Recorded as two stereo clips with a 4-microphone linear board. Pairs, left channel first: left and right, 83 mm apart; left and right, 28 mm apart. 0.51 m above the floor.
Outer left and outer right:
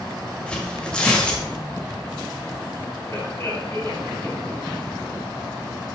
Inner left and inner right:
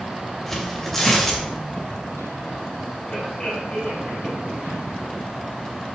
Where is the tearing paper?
10° left (ahead or behind), 1.9 m.